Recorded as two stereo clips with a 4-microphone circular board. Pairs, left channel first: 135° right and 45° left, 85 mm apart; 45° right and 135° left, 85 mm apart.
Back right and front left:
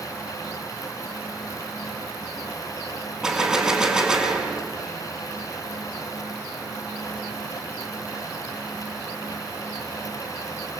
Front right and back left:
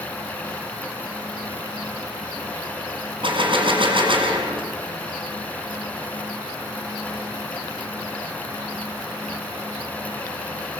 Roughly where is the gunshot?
Behind left.